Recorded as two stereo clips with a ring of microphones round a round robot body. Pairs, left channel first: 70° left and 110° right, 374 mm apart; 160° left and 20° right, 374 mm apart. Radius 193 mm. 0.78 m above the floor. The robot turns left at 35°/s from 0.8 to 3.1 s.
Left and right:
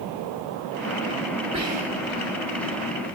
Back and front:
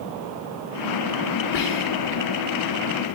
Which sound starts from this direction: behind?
Whispering, at 1.5 s.